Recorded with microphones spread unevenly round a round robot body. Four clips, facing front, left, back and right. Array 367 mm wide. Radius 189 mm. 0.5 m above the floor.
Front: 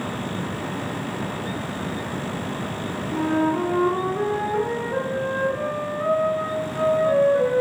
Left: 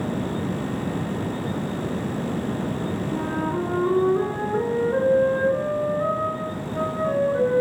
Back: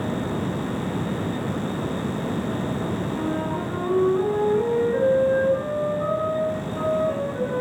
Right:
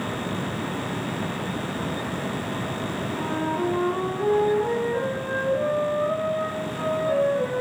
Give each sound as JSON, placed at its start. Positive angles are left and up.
{"t": 3.1, "sound": "a flute", "azimuth_deg": 65, "distance_m": 6.5}